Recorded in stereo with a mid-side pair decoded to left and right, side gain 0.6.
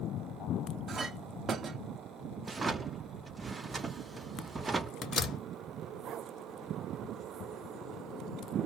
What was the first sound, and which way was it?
A clink, 40° right.